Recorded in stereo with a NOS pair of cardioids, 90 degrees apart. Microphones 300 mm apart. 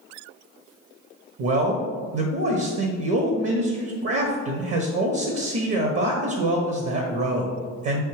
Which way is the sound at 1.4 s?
50° right.